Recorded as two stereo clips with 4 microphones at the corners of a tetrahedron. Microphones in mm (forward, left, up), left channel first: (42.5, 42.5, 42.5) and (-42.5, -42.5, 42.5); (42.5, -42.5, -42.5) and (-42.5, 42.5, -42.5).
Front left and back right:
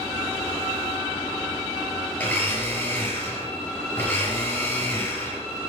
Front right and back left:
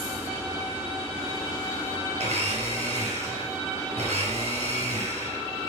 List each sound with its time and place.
2.2 s a blender: 125° left, 5.5 m